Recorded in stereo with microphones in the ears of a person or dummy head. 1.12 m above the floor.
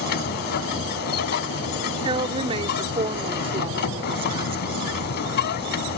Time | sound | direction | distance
0.0 | a machine running | 55° left (ahead or behind) | ?
2.0 | a woman speaking | 35° right (ahead or behind) | ?